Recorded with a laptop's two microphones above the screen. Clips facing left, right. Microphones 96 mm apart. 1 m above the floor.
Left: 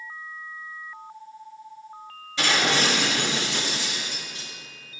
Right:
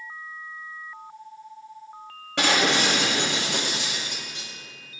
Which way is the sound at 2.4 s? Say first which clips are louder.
Right 1 dB; 70° right (ahead or behind).